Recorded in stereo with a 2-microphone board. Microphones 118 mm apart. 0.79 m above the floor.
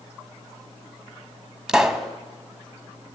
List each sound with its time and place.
1.7 s a pop: 5° right (ahead or behind), 0.8 m